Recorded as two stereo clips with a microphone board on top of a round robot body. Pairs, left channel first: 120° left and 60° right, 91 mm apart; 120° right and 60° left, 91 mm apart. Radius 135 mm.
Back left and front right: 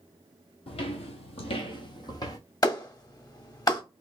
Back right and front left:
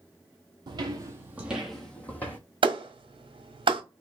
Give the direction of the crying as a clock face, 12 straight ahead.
No crying in this recording.